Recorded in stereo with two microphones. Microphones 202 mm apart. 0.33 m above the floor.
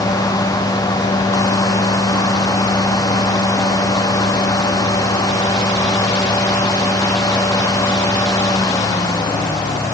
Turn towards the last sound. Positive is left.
No sound to turn to.